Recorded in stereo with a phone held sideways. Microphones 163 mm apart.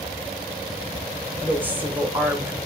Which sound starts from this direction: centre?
A woman speaking, at 1.4 s.